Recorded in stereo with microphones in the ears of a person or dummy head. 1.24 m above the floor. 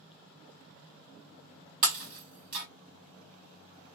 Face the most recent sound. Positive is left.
turn(degrees=-40)  # may be behind; listen again after turning